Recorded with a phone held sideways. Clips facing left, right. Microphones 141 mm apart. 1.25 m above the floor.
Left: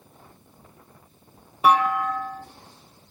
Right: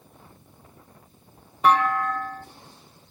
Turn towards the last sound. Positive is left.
turn(degrees=10)  # may be behind; listen again after turning